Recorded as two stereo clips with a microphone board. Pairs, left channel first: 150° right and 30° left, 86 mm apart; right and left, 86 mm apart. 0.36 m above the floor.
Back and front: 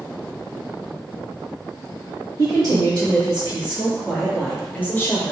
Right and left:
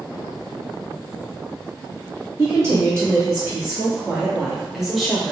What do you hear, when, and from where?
2.4 s a woman speaking: 40° left, 1.6 m; by 5.3 s 175° right, 1.3 m